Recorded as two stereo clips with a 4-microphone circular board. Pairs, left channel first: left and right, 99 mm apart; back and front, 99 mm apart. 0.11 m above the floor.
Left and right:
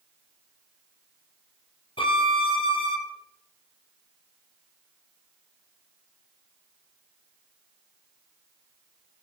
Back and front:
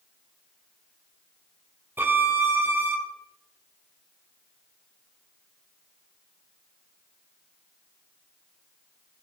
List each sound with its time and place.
2.0 s a violin: 70° left, 1.4 m